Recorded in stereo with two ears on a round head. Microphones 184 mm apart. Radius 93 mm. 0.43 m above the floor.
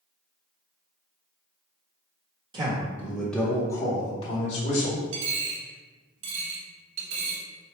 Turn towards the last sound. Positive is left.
turn(degrees=-70)  # may be behind; listen again after turning